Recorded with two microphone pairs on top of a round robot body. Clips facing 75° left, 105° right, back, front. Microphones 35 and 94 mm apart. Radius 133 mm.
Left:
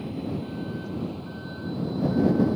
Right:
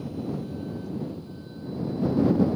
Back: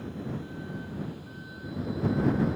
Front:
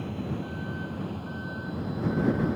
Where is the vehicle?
20° left; by 2.6 s 35° left.